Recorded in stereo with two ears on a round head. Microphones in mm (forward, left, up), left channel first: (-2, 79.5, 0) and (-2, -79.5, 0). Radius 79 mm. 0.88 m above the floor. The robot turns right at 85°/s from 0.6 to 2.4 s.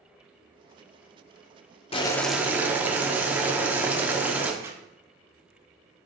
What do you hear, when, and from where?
1.9 s boiling: 150° left, 1.1 m; by 4.5 s 170° right, 1.1 m
4.6 s a zipper: 15° right (ahead or behind), 1.2 m